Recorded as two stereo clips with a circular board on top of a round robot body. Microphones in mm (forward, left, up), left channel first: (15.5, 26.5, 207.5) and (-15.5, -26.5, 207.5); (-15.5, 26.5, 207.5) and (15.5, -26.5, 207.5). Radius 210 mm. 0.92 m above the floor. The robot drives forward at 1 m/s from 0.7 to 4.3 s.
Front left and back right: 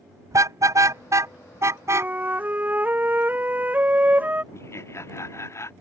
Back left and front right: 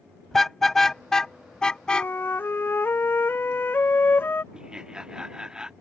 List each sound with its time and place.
0.3 s a car horn: 155° right; by 2.1 s 165° right
1.9 s a flute: straight behind
4.5 s laughter: 20° left